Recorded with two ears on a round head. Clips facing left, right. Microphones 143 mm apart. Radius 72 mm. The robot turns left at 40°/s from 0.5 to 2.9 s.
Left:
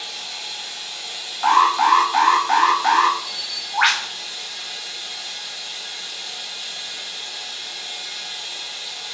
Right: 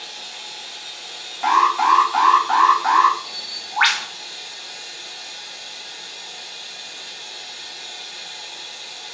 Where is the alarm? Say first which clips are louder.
Left 1 dB; 160° right, 0.5 m; by 3.2 s 140° left, 0.5 m.